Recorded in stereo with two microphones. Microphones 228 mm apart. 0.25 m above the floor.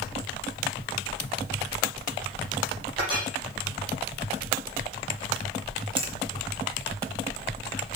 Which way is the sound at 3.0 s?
20° right (ahead or behind).